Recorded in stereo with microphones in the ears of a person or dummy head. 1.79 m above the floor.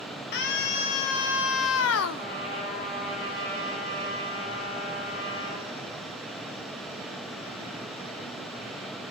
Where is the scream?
60° left (ahead or behind), 3 m; by 2.3 s 65° left (ahead or behind), 1.0 m.